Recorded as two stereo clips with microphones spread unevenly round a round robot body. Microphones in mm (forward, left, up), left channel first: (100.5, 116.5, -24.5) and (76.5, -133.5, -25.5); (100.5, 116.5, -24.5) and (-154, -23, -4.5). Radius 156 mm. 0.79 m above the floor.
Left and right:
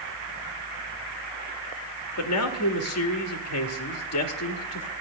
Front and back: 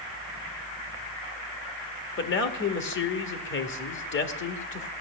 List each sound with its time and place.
2.2 s a man speaking: 75° left, 1.4 m